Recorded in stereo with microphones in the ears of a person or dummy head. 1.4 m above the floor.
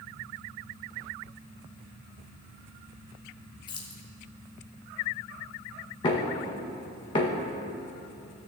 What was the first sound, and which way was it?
Keys jangling, 25° left (ahead or behind).